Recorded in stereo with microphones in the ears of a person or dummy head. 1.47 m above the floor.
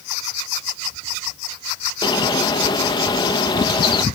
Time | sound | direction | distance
2.0 | a bird | 20° left (ahead or behind) | 1.2 m